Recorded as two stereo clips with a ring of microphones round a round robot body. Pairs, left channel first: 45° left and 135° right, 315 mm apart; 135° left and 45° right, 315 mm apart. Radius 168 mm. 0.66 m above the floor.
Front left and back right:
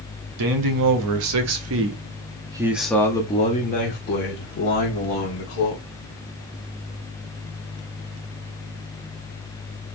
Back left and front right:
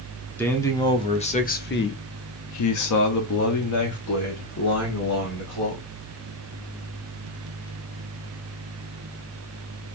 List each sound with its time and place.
0.4 s a man speaking: 140° right, 1.2 m; by 5.8 s 90° left, 2.0 m